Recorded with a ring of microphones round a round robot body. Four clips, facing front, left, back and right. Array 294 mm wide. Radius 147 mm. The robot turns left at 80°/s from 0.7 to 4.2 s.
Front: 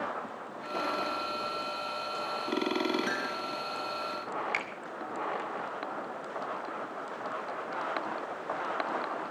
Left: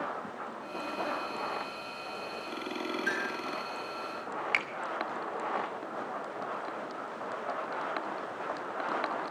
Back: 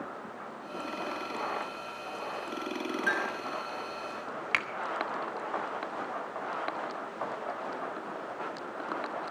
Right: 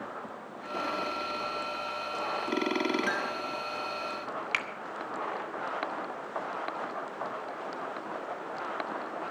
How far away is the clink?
About 5.5 m.